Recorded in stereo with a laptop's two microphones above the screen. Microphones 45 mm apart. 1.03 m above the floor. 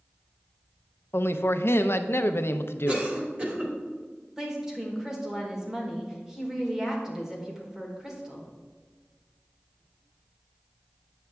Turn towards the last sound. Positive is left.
turn(degrees=-10)  # may be behind; listen again after turning